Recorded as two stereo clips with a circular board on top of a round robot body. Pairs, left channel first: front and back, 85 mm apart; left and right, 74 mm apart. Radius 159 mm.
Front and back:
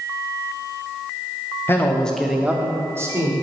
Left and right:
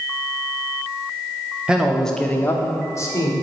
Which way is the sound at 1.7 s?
25° right.